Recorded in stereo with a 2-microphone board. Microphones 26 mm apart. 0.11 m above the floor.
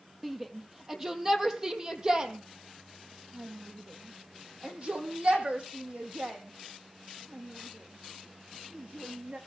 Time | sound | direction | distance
0.2 | a shout | 10° right (ahead or behind) | 3.5 m